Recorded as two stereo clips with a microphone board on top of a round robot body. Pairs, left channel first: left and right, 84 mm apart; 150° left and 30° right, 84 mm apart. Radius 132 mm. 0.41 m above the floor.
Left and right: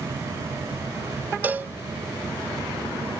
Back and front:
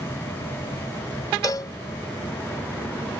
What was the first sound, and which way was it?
A cowbell, 160° right.